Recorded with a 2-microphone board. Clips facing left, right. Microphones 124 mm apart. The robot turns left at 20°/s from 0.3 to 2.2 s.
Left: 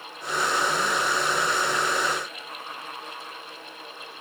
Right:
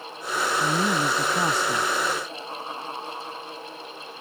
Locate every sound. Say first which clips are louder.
0.6 s a man speaking: right 2 dB; 75° right (ahead or behind)